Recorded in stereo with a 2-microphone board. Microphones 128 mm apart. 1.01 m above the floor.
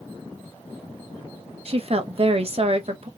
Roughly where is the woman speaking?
Right.